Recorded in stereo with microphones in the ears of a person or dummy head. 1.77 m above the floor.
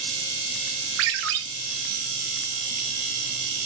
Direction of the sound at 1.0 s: 60° right (ahead or behind).